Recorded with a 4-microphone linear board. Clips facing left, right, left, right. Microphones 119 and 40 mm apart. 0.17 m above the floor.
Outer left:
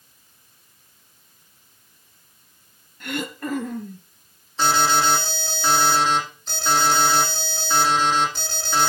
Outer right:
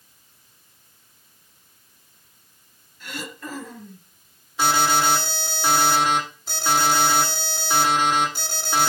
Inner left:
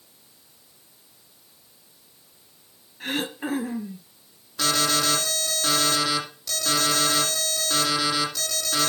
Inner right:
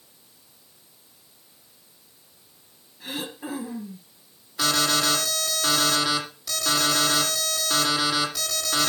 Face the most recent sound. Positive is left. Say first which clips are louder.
# outer left 1 dB, even
turn(degrees=-10)  # may be behind; listen again after turning